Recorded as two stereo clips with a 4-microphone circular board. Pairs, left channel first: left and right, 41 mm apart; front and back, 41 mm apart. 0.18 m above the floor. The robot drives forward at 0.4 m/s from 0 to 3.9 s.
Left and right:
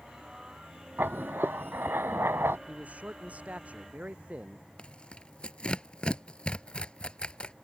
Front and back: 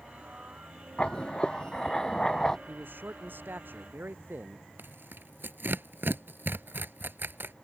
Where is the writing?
65° right; by 2.6 s 75° right.